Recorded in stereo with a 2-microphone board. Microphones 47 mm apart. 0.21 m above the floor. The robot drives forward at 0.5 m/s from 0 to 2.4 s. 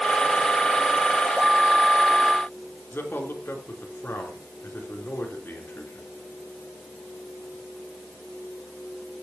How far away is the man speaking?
About 3.5 m.